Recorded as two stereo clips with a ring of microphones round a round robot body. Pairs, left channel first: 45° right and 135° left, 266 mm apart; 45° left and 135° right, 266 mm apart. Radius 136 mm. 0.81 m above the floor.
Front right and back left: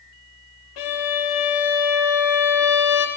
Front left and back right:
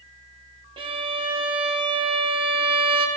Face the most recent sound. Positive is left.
turn(degrees=-60)